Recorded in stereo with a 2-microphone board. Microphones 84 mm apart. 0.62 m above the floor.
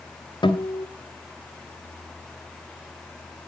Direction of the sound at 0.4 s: 70° left (ahead or behind).